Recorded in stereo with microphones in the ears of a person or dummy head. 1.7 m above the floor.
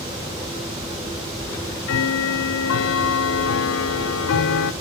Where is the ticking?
65° left (ahead or behind), 0.9 m.